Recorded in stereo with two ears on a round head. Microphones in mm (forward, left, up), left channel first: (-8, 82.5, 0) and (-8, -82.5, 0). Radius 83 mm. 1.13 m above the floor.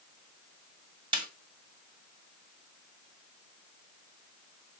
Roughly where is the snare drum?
Right.